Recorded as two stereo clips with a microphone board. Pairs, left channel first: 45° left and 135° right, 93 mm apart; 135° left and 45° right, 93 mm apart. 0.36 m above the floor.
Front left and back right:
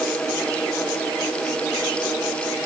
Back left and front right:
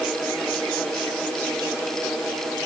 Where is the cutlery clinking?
No cutlery clinking in this recording.